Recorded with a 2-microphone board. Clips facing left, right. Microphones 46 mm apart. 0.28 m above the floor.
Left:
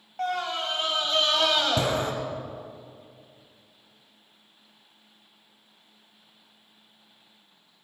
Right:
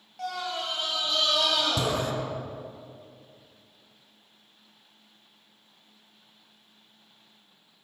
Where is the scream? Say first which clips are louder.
Left 4 dB; 40° left (ahead or behind), 1.8 m.